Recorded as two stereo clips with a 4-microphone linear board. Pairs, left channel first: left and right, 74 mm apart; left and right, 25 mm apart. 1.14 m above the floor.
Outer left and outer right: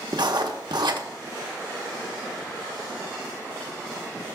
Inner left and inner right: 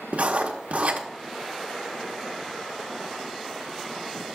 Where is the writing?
65° right (ahead or behind), 1.0 m.